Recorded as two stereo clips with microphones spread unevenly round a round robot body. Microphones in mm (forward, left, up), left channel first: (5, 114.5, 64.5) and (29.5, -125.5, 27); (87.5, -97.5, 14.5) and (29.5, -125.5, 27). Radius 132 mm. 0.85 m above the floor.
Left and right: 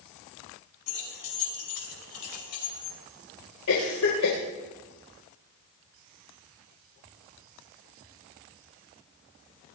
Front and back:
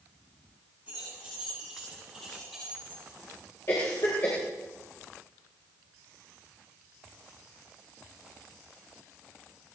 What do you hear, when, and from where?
0.9 s keys jangling: 125° left, 5.5 m; by 3.0 s 115° left, 6 m
3.7 s a cough: 85° left, 3.5 m